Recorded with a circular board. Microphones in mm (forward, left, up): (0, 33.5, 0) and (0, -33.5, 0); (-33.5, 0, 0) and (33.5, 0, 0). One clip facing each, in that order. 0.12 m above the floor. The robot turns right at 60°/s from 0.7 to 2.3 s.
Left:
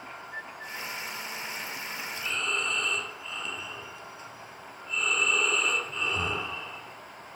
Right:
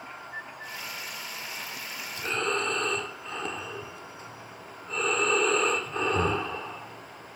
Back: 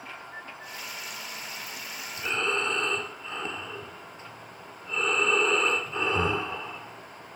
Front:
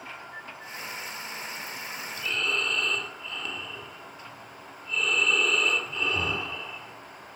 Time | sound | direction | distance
2.2 | breathing | 130° right | 1.4 m